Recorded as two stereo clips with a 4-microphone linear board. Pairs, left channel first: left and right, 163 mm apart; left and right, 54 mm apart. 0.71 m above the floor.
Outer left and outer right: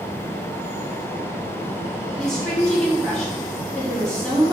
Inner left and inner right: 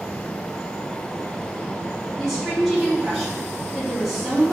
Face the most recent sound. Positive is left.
turn(degrees=5)  # may be behind; listen again after turning